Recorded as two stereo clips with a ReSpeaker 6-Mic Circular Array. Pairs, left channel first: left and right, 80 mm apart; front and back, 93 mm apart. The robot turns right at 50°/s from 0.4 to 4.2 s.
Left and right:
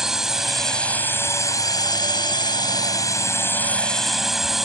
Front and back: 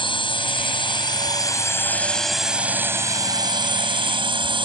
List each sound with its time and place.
0.0 s a drone: 5° right; by 4.7 s 175° right